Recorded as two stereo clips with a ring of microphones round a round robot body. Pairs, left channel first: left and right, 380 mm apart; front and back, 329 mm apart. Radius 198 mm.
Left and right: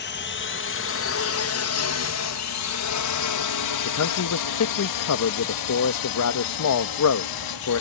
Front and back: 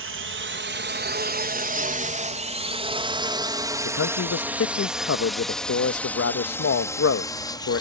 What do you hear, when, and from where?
0.0 s a drone: 145° left; by 7.8 s 75° left
3.9 s a man speaking: 45° left